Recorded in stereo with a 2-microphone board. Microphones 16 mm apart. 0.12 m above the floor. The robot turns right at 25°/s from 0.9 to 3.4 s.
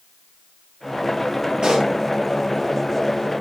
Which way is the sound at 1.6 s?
55° right (ahead or behind).